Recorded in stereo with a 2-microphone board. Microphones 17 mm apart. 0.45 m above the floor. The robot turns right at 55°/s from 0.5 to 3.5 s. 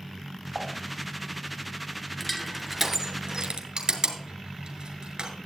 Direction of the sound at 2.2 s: 5° left (ahead or behind).